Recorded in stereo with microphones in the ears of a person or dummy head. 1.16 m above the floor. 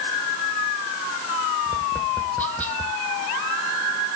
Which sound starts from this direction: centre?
Tapping, at 1.7 s.